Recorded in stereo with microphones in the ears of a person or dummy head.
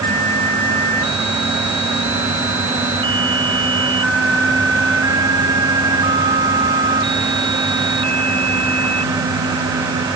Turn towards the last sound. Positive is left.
No sound to turn to.